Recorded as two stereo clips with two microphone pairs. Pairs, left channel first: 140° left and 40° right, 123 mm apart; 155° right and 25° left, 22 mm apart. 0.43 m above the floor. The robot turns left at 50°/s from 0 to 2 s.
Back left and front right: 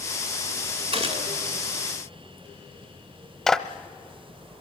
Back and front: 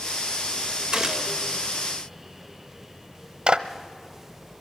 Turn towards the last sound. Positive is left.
turn(degrees=55)